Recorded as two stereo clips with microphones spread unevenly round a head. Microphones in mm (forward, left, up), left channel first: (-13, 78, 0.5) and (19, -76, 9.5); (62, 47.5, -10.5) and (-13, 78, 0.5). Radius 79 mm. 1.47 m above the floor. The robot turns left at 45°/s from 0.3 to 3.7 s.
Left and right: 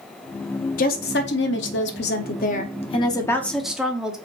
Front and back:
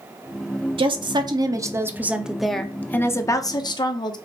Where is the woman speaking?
140° left, 0.7 m; by 4.2 s 10° left, 0.7 m.